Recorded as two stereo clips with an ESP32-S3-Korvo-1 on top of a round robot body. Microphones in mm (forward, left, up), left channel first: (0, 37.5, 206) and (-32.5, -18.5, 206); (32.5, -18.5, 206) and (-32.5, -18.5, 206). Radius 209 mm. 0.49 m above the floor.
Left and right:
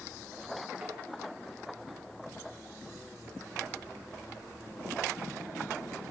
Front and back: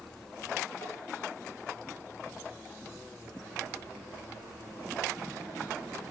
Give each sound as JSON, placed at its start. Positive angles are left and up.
{"t": 0.8, "sound": "tapping", "azimuth_deg": -30, "distance_m": 4.5}